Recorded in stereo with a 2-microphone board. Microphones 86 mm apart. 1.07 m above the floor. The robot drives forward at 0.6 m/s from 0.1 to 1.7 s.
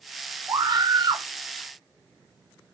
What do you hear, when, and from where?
0.5 s a scream: 50° right (ahead or behind), 2 m; by 1.3 s 60° right (ahead or behind), 1.9 m